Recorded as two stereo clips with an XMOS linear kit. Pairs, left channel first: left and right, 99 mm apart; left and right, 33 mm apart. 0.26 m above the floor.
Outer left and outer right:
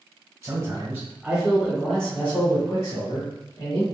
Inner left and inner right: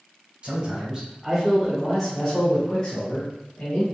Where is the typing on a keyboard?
No typing on a keyboard in this recording.